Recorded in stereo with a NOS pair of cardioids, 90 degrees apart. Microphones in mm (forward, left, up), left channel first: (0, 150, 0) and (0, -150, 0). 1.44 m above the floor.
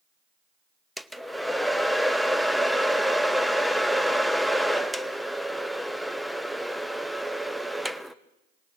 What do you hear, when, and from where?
1.0 s a hair dryer: straight ahead, 0.6 m